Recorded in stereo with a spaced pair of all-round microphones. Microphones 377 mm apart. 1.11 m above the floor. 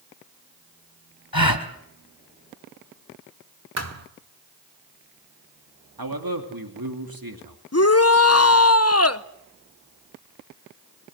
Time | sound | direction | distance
1.3 | a gasp | 65° left (ahead or behind) | 1.9 m
3.8 | a thud | 40° right (ahead or behind) | 1.5 m
6.0 | a man speaking | 65° right (ahead or behind) | 2.5 m
7.7 | a shout | 40° left (ahead or behind) | 0.8 m